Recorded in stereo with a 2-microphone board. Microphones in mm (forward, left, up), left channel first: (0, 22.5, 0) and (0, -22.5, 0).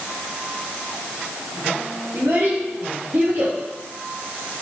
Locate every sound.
2.1 s a child speaking: 55° right (ahead or behind), 3 m